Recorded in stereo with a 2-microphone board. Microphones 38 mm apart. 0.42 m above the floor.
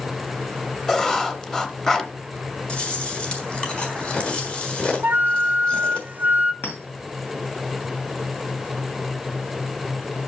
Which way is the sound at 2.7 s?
25° left (ahead or behind).